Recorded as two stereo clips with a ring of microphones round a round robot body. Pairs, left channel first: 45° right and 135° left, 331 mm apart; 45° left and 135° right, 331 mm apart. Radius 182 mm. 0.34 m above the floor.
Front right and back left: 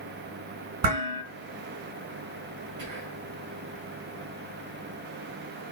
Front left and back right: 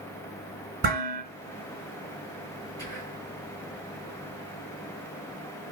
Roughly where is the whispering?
Behind left.